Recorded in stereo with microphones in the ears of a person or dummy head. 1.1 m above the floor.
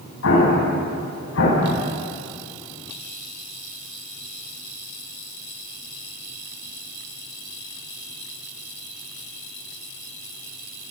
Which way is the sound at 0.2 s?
80° left.